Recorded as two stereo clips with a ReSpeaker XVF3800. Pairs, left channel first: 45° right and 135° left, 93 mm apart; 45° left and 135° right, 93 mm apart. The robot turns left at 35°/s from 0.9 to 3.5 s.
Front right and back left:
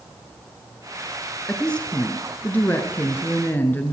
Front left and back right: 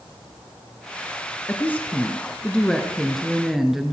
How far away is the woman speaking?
About 1.2 m.